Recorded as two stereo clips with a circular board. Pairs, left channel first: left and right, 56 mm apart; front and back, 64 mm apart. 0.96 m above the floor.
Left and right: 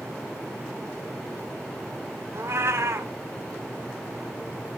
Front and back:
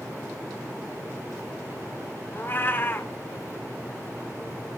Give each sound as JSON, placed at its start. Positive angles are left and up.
{"t": 2.3, "sound": "a cat meowing", "azimuth_deg": -55, "distance_m": 1.1}